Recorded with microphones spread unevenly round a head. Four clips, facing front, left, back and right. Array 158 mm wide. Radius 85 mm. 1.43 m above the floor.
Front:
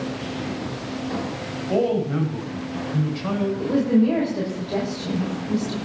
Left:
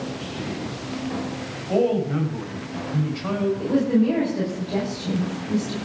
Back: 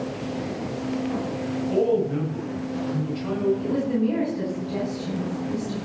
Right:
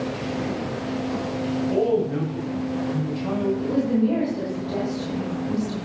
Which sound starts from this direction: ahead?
A woman speaking, at 3.6 s.